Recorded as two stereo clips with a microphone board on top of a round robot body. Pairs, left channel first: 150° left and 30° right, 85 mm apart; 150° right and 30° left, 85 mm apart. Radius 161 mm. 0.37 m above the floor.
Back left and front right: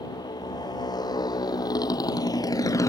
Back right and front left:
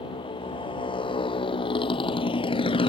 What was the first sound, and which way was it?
A motorcycle, 170° right.